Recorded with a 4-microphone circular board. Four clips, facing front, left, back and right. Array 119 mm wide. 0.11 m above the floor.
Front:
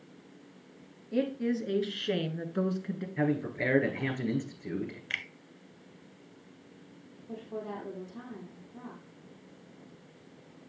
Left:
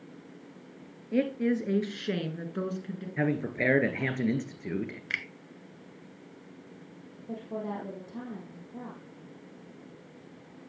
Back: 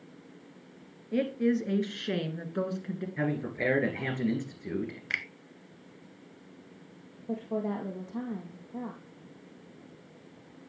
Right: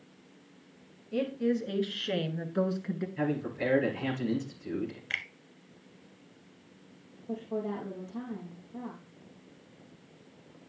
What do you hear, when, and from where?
1.1 s a woman speaking: 110° left, 2.5 m; by 3.1 s 85° right, 1.9 m
3.2 s a man speaking: 95° left, 2 m
5.1 s a finger snap: 155° left, 0.8 m
7.3 s a woman speaking: 170° left, 2.5 m